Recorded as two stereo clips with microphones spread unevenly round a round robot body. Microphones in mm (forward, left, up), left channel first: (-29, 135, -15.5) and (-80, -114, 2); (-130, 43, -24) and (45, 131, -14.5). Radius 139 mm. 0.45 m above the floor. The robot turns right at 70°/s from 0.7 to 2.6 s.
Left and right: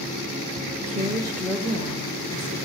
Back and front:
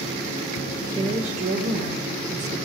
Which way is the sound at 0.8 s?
55° right.